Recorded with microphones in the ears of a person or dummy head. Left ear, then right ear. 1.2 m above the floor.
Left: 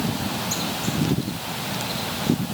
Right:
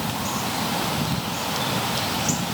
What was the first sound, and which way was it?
Only background noise.